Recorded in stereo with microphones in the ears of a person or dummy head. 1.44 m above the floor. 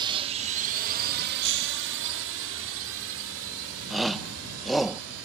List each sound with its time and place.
0.0 s a drone: 25° right (ahead or behind); by 5.2 s 85° right
1.4 s breaking glass: 60° right (ahead or behind)
3.9 s a shout: centre (ahead or behind)